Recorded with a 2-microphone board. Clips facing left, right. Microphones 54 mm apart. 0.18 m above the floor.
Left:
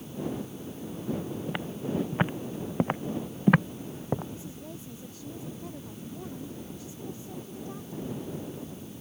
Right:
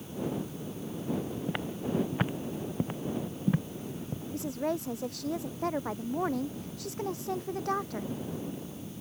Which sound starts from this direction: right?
A woman speaking, at 4.3 s.